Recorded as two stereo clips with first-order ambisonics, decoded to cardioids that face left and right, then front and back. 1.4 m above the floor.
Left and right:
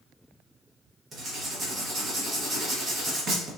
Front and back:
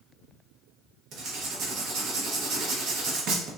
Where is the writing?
150° right, 0.8 m.